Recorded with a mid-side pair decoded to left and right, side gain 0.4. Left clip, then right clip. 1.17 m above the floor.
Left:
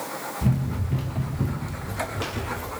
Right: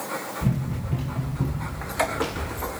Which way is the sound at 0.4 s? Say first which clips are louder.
Left 1 dB; 10° left.